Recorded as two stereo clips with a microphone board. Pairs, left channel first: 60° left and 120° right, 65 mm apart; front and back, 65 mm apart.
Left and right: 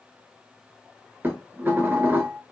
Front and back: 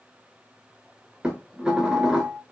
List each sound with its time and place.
1.2 s dishes clattering: 115° right, 0.8 m